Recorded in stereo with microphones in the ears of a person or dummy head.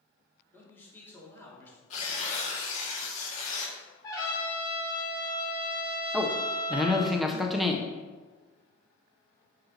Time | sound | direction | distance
0.5 | a man speaking | 15° left (ahead or behind) | 2 m
1.9 | tearing paper | 50° left (ahead or behind) | 1.5 m
4.0 | a trumpet | 25° left (ahead or behind) | 2 m
6.1 | a man speaking | 5° left (ahead or behind) | 0.6 m